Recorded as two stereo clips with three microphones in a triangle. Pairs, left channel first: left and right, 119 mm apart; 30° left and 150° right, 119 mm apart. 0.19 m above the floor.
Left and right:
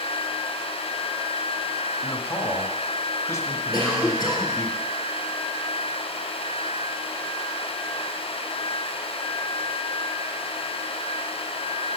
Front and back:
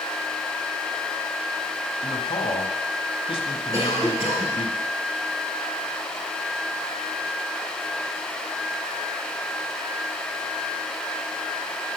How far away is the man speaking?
About 1.4 m.